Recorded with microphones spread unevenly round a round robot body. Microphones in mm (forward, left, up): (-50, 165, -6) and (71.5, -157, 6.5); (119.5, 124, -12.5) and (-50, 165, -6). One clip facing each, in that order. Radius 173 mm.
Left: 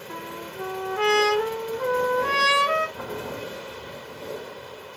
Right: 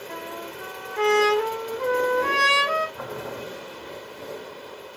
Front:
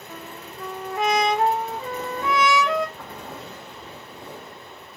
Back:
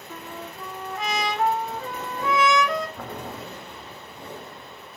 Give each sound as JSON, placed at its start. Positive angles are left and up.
{"t": 0.1, "sound": "a trumpet", "azimuth_deg": -10, "distance_m": 2.5}
{"t": 3.0, "sound": "boiling", "azimuth_deg": 160, "distance_m": 1.0}